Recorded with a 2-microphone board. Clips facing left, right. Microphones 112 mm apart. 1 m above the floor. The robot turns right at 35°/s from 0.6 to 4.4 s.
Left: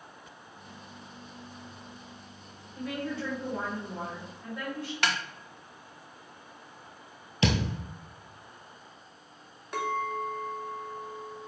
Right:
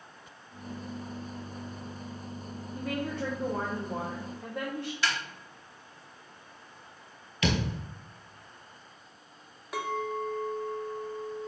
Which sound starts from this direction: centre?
A clink, at 9.7 s.